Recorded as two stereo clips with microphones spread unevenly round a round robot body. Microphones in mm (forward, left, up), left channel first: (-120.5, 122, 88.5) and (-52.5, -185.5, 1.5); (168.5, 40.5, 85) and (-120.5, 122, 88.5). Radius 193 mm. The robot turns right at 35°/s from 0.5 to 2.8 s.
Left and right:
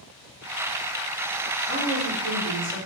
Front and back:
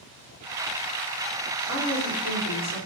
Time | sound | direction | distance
1.7 | a woman speaking | 95° right | 1.5 m